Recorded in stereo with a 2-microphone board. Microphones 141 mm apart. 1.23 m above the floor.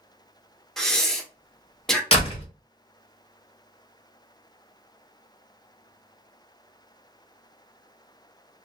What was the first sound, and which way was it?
Breathing, 5° left (ahead or behind).